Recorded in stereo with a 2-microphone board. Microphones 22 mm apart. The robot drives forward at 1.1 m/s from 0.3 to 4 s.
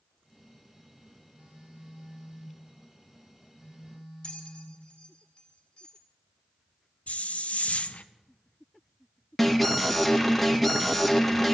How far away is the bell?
About 2.5 m.